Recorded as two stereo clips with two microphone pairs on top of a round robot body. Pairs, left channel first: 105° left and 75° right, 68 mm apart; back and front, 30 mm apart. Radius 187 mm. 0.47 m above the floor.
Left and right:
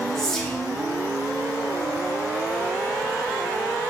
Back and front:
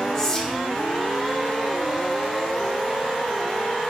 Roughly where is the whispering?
Behind right.